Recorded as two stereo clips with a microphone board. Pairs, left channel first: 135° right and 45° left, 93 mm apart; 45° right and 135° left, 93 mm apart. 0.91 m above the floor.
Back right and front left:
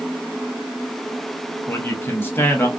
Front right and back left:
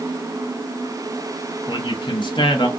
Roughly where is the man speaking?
Right.